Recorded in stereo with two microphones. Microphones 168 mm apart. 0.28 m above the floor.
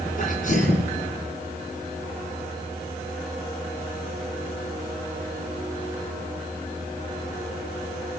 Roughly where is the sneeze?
Left.